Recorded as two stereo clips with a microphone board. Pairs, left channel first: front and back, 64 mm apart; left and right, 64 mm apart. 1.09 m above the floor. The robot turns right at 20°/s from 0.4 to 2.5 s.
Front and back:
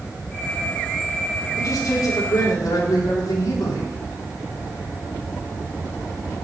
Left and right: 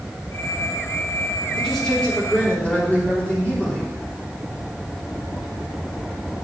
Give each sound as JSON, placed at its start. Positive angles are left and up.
{"t": 1.6, "sound": "a man speaking", "azimuth_deg": 0, "distance_m": 3.5}